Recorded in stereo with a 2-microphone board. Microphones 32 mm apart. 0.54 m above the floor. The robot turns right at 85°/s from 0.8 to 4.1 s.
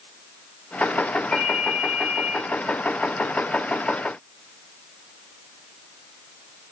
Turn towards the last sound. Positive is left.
turn(degrees=25)